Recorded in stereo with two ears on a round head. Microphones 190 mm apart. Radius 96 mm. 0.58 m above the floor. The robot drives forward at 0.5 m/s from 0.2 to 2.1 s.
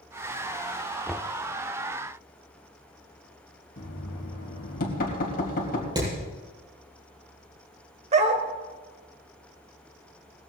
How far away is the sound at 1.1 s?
About 0.6 m.